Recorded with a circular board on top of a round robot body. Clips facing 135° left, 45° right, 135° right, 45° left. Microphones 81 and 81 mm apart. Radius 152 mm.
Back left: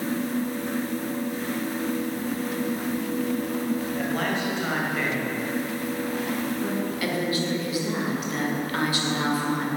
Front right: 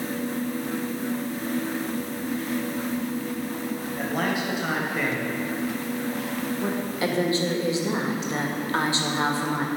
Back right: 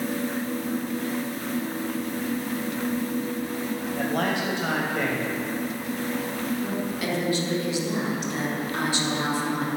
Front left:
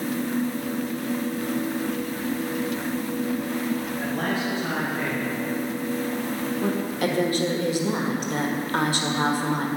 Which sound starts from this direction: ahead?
A woman speaking, at 6.6 s.